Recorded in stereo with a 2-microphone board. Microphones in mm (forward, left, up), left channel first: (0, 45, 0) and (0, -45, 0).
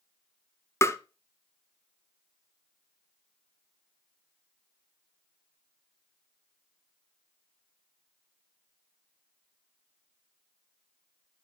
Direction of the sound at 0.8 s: 30° left (ahead or behind).